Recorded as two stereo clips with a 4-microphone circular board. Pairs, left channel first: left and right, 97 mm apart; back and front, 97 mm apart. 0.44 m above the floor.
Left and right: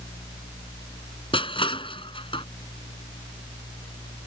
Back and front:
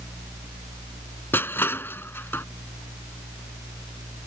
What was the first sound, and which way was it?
Crushing, 115° left.